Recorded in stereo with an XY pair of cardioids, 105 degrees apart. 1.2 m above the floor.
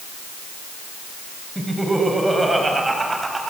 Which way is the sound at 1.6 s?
5° right.